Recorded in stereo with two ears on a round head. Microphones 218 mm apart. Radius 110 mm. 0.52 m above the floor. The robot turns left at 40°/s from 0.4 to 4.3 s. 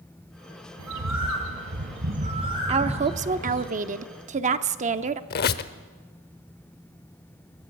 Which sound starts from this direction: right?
A bird, at 0.8 s.